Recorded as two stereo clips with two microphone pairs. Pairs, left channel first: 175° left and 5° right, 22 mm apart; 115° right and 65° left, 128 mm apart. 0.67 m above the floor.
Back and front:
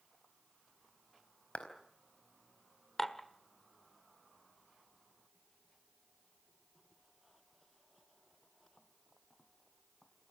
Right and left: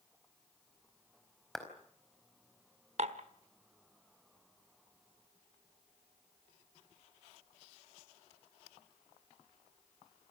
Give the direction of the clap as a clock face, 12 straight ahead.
7 o'clock.